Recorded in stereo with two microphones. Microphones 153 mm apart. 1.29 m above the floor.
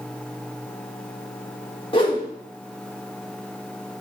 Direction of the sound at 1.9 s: 35° left (ahead or behind).